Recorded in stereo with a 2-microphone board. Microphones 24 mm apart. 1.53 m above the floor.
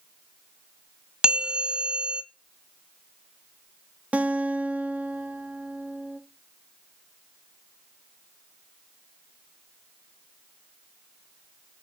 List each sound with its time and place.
1.2 s a bell: 35° right (ahead or behind), 1.1 m
4.1 s a guitar: 65° right (ahead or behind), 0.8 m